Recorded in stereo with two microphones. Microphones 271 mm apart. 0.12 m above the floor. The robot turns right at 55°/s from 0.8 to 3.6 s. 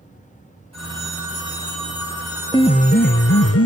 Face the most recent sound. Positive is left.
turn(degrees=80)